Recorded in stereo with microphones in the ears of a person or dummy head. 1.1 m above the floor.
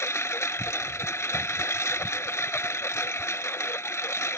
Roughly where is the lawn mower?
Centre.